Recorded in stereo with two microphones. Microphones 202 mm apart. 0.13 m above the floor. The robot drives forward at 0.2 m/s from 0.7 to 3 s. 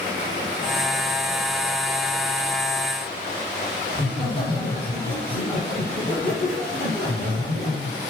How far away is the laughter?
About 2.5 m.